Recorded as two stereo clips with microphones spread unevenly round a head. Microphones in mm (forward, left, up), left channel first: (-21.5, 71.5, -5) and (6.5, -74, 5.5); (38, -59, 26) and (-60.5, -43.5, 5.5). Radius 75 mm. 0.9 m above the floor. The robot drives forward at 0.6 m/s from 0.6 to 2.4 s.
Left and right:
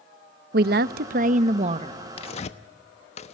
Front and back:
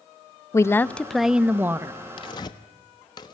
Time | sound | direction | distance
0.5 | a woman speaking | 75° right | 0.8 m
2.2 | tearing paper | 50° left | 1.0 m